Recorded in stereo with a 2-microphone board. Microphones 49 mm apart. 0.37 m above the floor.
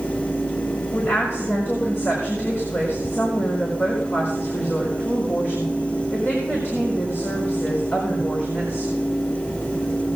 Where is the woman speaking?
45° left (ahead or behind), 4.5 m.